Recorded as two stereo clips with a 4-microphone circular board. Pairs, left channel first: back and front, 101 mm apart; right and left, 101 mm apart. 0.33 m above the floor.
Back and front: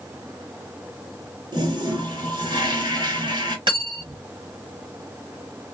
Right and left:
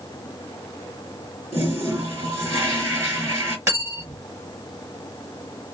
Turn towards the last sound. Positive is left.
turn(degrees=30)